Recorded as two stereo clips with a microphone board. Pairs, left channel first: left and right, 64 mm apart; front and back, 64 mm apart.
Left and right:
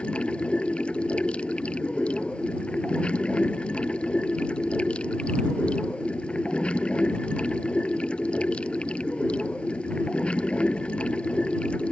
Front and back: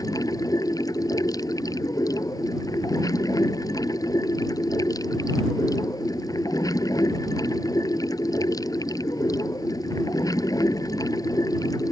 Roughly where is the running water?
Ahead.